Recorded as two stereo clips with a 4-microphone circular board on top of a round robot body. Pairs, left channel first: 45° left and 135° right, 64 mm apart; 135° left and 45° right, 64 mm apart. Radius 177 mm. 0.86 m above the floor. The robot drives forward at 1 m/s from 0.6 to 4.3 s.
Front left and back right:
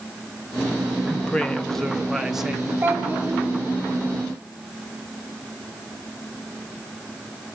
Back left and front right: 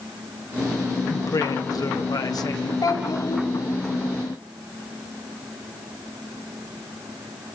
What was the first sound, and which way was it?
A woman speaking, 110° left.